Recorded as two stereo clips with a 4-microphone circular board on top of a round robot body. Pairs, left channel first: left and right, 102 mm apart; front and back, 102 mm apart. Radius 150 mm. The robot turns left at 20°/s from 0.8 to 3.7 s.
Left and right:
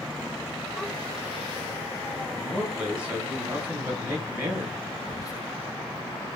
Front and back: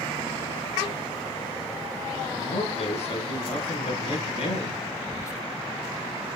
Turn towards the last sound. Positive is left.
turn(degrees=50)